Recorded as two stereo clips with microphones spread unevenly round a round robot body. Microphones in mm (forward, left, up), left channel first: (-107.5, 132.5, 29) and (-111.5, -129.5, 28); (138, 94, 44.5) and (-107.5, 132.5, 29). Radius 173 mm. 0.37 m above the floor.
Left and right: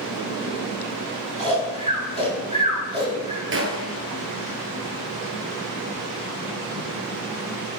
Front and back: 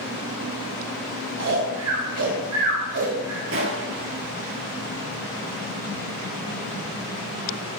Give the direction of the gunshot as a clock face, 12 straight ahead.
4 o'clock.